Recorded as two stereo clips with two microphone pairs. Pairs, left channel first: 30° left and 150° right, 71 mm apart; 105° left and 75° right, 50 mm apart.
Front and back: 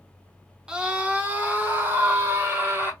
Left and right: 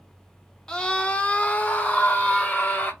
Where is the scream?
155° left, 0.8 m.